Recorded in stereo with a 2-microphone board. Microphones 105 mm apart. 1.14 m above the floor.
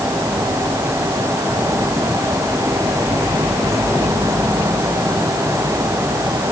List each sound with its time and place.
Only background noise.